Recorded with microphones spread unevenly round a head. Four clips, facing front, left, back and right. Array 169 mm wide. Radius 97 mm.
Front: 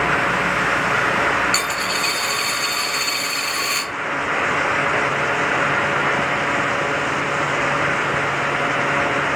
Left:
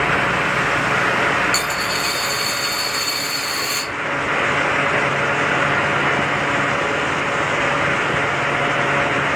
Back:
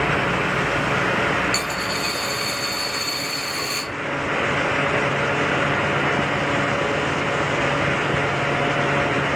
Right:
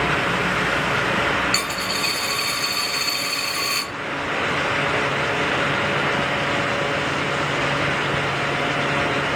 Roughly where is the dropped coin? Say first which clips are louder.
Left 4 dB, front 2 dB; ahead right.